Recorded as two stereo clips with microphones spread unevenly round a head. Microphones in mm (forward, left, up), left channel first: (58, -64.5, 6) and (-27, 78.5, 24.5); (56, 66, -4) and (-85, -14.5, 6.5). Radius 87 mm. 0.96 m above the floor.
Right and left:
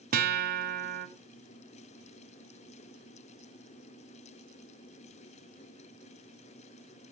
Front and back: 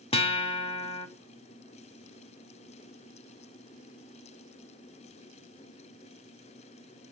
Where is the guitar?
85° left, 2.5 m.